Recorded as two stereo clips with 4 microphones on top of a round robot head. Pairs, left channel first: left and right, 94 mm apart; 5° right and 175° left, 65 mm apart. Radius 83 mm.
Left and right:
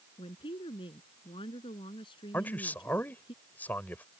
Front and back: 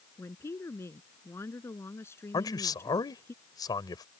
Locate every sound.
0.2 s a woman speaking: 45° left
2.3 s a man speaking: 15° left